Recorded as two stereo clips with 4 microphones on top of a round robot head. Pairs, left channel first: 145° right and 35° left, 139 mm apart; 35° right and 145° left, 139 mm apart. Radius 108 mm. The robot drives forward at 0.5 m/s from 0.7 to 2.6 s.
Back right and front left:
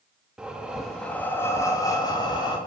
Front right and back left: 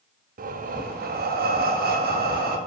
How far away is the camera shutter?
No camera shutter in this recording.